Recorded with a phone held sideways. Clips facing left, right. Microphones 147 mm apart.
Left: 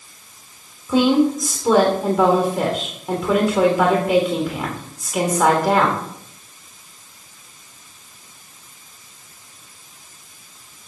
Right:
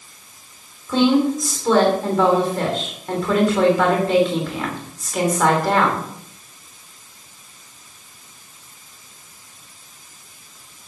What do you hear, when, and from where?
0.9 s a woman speaking: 10° left (ahead or behind), 3 m